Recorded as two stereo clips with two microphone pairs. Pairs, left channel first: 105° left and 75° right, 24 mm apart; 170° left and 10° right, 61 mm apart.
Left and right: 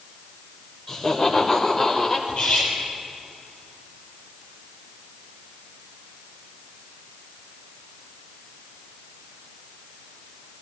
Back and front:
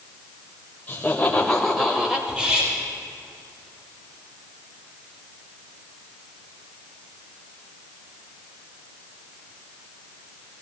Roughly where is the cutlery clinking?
Ahead left.